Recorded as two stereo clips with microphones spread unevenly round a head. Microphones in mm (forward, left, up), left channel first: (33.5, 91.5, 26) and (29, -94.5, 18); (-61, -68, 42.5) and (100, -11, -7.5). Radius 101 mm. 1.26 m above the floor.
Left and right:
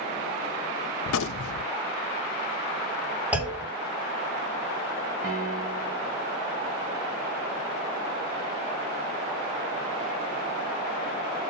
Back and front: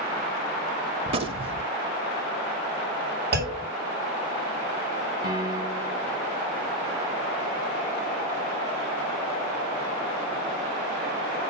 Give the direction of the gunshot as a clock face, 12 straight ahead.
9 o'clock.